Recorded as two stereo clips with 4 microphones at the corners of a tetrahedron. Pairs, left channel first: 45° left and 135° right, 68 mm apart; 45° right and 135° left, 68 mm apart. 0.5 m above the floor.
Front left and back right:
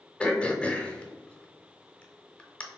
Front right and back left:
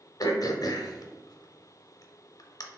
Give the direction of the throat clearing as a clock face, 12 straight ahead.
1 o'clock.